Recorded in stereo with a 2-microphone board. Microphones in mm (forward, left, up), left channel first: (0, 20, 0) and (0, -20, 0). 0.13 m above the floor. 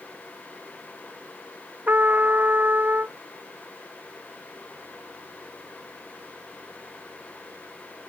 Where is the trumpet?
50° right (ahead or behind).